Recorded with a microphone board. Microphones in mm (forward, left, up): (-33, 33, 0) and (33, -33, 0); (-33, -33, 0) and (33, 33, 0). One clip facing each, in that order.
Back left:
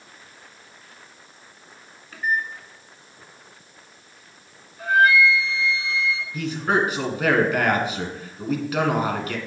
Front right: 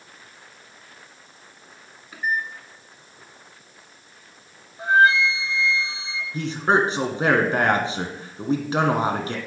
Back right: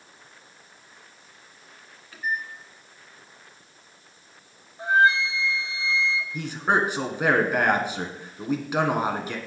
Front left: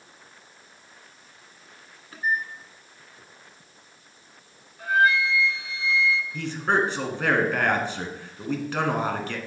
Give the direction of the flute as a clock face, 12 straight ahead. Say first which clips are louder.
Even, back right 1 dB; 3 o'clock.